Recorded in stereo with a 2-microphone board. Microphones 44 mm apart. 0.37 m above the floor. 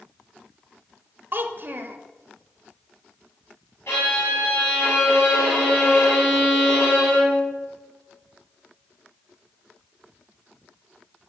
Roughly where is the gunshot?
No gunshot in this recording.